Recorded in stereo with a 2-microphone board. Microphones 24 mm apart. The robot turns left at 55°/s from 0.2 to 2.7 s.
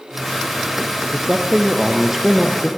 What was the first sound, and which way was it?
A man speaking, 105° right.